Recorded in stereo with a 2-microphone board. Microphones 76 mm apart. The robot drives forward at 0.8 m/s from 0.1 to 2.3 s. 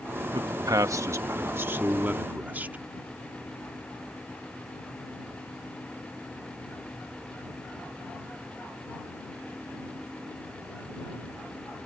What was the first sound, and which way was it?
A man speaking, 70° right (ahead or behind).